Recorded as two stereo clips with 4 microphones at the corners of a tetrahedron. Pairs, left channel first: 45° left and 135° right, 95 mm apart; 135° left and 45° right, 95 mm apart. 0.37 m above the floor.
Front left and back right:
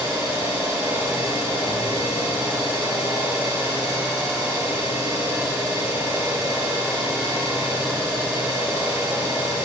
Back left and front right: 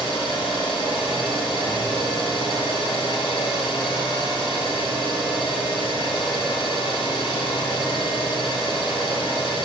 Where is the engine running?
165° left, 4 m.